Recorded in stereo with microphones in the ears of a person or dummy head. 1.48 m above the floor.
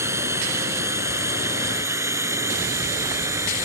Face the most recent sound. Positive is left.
turn(degrees=-15)  # may be behind; listen again after turning